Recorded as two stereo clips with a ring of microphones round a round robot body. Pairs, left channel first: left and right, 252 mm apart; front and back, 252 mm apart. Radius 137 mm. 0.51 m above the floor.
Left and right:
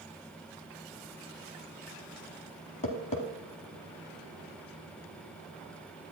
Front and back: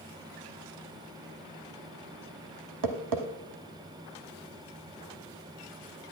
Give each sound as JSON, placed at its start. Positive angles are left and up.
{"t": 2.8, "sound": "tapping", "azimuth_deg": 160, "distance_m": 0.9}